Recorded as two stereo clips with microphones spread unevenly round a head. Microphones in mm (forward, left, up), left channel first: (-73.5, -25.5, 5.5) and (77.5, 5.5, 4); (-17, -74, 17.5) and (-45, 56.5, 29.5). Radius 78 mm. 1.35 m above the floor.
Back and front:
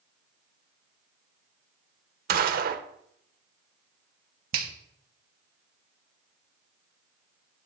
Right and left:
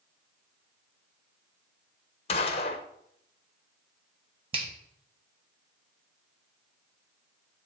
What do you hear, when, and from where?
2.3 s a gunshot: 25° right, 0.7 m
4.5 s a finger snap: 45° left, 1.2 m